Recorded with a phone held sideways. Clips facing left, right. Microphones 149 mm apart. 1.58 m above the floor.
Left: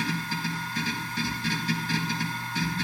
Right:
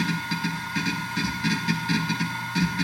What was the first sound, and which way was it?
A machine running, 90° right.